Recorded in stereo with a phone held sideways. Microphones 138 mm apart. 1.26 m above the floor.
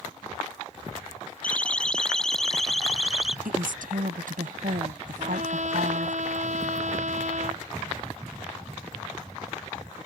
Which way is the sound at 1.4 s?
10° left (ahead or behind).